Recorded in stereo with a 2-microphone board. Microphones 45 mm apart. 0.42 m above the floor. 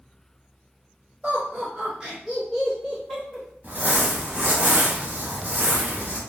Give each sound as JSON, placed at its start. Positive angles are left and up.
{"t": 1.2, "sound": "laughter", "side_deg": -30, "distance_m": 1.5}
{"t": 3.6, "sound": "crumpling", "side_deg": -40, "distance_m": 1.0}